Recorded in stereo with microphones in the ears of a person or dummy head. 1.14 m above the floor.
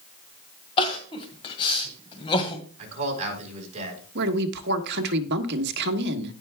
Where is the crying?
30° left (ahead or behind), 1.8 m.